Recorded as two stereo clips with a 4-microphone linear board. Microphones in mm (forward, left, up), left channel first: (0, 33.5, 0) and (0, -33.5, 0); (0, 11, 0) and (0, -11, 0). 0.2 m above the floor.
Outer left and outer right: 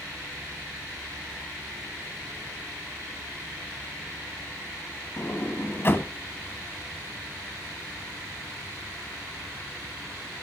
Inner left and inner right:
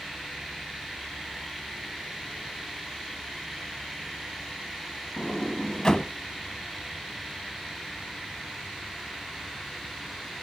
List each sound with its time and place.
5.2 s a sliding door: 35° left (ahead or behind), 1.0 m